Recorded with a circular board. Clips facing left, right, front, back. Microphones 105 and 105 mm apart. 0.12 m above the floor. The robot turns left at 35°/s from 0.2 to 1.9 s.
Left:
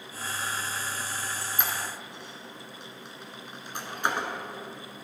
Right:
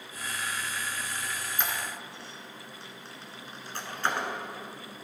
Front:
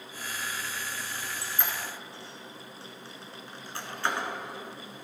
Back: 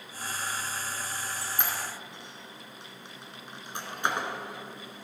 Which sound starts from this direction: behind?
A squeak, at 1.1 s.